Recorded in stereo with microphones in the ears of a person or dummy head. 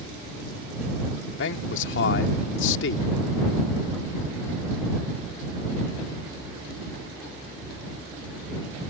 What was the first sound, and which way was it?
A man speaking, 75° left (ahead or behind).